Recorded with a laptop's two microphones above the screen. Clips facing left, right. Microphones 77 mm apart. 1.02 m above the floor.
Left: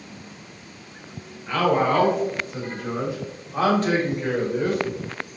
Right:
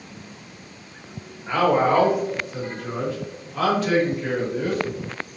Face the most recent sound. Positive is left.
turn(degrees=55)  # may be behind; listen again after turning